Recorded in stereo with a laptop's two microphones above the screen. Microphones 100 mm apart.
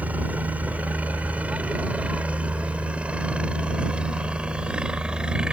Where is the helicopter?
15° right (ahead or behind); by 5.5 s 10° right (ahead or behind).